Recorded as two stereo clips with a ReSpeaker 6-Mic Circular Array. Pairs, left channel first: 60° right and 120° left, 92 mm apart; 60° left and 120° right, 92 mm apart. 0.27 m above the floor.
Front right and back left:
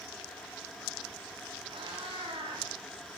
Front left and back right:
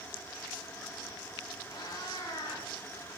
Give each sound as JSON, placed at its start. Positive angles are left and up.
{"t": 1.7, "sound": "a cat meowing", "azimuth_deg": 105, "distance_m": 7.5}